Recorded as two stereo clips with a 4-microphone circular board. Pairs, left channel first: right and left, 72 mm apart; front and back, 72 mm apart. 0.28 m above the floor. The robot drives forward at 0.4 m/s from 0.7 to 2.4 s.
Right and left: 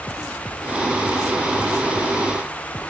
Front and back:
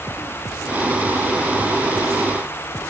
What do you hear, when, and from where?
Only background noise.